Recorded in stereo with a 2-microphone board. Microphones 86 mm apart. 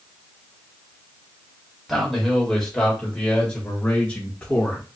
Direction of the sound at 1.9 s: Centre (ahead or behind).